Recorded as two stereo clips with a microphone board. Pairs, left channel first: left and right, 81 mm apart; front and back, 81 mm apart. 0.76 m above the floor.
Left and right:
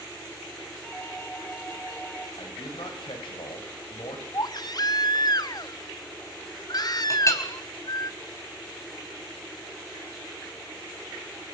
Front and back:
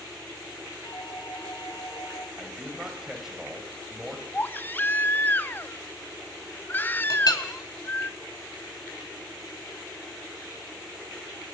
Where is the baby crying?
65° left, 0.7 m.